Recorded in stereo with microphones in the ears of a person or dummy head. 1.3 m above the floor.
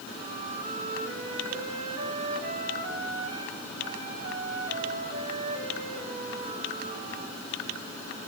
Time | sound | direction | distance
0.1 | a flute | 55° right (ahead or behind) | 3.5 m